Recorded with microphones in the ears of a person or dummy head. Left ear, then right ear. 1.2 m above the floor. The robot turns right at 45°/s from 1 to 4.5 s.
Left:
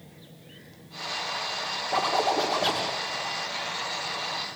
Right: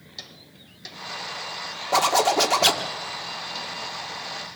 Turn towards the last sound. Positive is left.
turn(degrees=25)